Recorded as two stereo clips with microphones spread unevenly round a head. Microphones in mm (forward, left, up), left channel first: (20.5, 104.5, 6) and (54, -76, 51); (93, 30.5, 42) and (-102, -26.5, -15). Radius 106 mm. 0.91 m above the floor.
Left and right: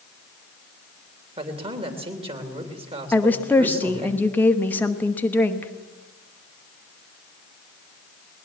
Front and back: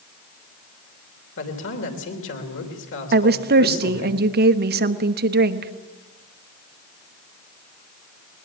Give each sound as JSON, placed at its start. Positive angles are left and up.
{"t": 1.4, "sound": "a man speaking", "azimuth_deg": -15, "distance_m": 3.0}
{"t": 3.1, "sound": "a woman speaking", "azimuth_deg": 175, "distance_m": 1.0}